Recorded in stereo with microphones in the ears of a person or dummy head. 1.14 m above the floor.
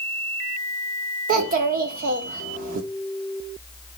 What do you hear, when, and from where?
1.3 s a child speaking: 45° right (ahead or behind), 1.4 m